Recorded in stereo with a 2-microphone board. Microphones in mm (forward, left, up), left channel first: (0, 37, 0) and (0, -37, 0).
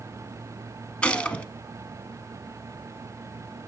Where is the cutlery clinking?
I don't hear cutlery clinking.